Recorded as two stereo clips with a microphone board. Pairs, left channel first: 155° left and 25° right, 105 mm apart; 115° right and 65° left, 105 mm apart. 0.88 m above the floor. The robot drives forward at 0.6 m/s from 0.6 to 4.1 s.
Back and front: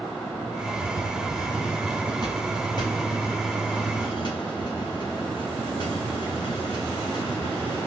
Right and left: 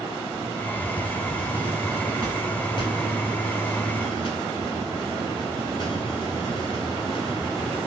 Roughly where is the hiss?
Behind right.